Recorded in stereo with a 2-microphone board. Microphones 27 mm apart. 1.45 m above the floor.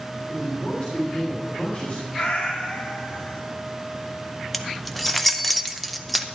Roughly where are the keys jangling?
Centre.